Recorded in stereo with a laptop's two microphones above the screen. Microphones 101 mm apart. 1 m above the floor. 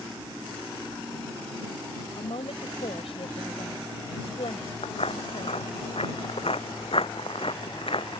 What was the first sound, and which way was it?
A woman speaking, 75° left (ahead or behind).